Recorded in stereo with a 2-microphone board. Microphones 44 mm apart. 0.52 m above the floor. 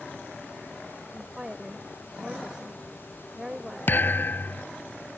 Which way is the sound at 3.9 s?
55° left (ahead or behind).